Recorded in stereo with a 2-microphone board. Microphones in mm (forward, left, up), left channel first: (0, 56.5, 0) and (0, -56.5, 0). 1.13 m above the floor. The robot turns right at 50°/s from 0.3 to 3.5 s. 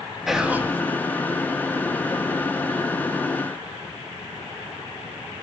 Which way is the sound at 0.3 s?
5° right (ahead or behind).